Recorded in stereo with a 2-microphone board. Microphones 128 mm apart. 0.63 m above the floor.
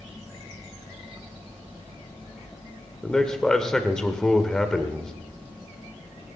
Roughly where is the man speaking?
Centre.